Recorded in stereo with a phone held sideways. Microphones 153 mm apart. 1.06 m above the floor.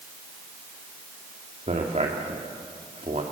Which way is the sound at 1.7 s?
45° right (ahead or behind).